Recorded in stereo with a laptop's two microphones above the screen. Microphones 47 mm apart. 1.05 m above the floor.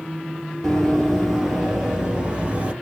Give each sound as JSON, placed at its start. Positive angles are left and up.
{"t": 0.6, "sound": "running footsteps", "side_deg": 10, "distance_m": 1.6}